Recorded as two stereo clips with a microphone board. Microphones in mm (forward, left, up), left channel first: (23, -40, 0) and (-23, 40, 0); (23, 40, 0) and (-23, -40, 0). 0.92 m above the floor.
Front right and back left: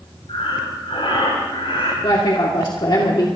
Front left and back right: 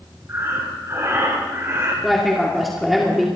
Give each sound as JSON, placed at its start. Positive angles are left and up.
{"t": 0.3, "sound": "breathing", "azimuth_deg": -65, "distance_m": 6.0}
{"t": 2.0, "sound": "a woman speaking", "azimuth_deg": -30, "distance_m": 2.0}